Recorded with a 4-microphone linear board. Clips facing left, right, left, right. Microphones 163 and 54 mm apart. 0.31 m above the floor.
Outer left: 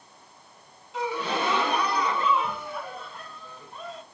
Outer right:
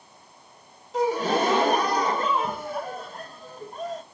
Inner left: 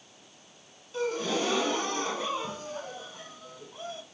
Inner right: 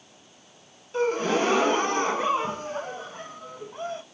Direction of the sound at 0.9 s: 45° right (ahead or behind).